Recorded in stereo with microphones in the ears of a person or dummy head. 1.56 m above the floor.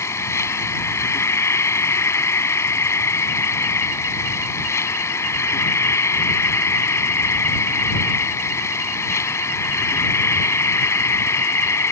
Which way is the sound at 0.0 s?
15° left (ahead or behind).